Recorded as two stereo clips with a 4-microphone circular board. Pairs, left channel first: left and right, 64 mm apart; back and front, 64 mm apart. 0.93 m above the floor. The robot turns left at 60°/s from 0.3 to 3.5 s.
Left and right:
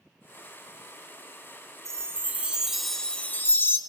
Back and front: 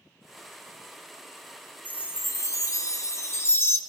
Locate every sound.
1.9 s a chime: 125° right, 0.7 m; by 3.8 s 135° left, 0.7 m